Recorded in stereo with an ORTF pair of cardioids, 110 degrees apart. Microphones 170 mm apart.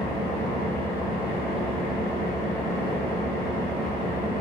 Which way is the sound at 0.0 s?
60° left.